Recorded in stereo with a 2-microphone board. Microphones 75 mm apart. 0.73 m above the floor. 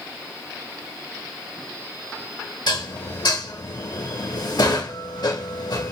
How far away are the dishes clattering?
About 0.9 m.